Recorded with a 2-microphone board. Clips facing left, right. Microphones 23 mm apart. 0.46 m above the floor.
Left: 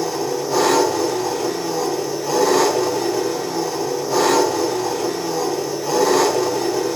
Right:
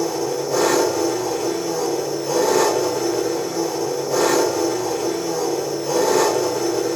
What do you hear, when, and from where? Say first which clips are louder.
0.0 s an engine running: even; 70° left (ahead or behind), 1.3 m